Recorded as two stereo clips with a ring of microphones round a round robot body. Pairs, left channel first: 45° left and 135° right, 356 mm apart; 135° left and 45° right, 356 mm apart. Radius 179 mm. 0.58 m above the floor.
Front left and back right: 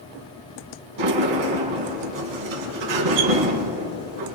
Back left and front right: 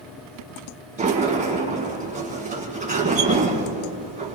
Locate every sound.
1.0 s a sliding door: 115° right, 2 m